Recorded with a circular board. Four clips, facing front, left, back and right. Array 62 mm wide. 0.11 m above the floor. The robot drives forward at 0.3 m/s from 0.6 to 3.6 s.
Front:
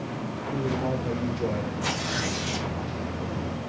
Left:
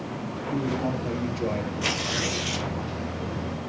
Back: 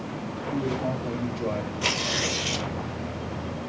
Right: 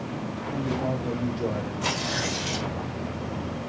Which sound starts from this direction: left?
A man speaking, at 0.5 s.